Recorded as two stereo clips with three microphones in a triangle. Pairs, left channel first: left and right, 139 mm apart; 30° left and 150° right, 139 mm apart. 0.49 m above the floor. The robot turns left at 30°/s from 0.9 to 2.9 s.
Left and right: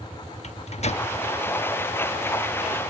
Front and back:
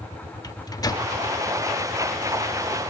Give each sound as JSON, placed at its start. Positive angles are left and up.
{"t": 0.4, "sound": "a microwave", "azimuth_deg": 85, "distance_m": 0.7}